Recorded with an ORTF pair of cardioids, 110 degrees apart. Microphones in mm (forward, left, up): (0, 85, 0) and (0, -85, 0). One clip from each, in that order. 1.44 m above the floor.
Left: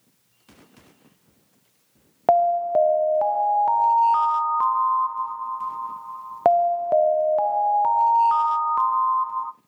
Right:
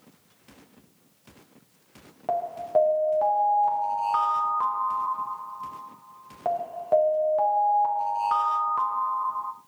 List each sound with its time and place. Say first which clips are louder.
2.3 s an alarm: left 8 dB; 60° left, 0.6 m